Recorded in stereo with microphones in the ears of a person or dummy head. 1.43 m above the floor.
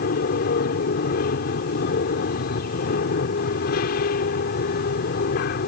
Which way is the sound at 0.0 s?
55° left (ahead or behind).